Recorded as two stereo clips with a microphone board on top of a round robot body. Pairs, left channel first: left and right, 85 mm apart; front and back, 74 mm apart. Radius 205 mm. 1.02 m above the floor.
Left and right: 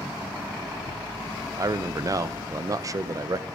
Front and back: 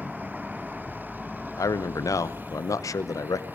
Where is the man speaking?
45° right, 0.9 m.